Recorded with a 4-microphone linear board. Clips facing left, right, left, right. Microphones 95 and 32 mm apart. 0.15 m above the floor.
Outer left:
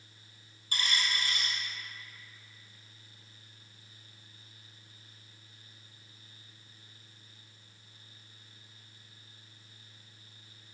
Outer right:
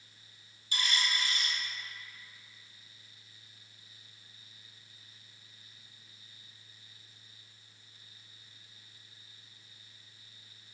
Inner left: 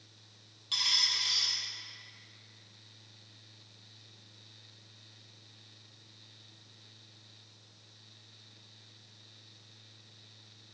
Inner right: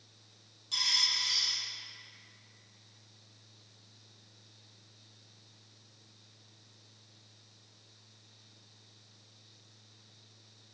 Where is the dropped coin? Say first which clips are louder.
Even, inner left 1 dB; 45° left (ahead or behind), 0.9 m.